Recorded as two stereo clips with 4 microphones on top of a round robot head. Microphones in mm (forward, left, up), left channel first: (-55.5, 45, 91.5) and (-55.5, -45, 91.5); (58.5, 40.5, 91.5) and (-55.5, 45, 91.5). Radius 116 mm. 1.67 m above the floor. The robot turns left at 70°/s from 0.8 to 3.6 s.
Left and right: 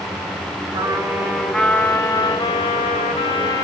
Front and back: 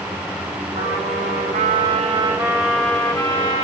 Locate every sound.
0.7 s a trumpet: 140° right, 2 m; by 3.6 s 25° left, 2 m